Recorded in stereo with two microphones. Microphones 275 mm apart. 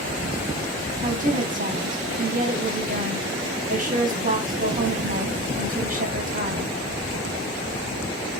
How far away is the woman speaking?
About 1.2 m.